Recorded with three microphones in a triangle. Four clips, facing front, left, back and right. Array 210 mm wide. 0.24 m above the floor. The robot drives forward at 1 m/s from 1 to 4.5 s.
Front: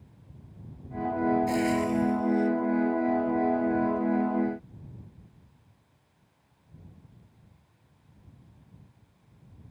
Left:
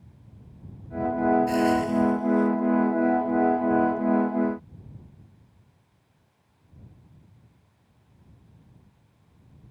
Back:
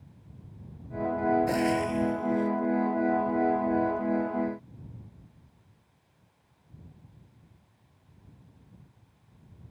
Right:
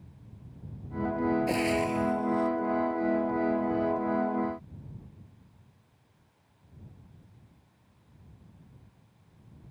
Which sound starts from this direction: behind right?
Frying, at 1.5 s.